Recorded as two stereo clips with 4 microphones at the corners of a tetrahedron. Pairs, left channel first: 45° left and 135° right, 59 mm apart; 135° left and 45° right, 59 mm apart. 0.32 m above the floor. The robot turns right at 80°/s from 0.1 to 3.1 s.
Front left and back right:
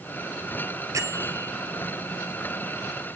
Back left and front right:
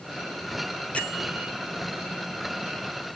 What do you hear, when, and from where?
0.9 s a bell: 160° right, 1.1 m; by 1.5 s 110° right, 1.1 m